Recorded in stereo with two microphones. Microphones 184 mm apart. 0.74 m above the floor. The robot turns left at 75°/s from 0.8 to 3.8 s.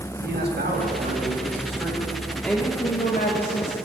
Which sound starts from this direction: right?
A man speaking, at 0.2 s.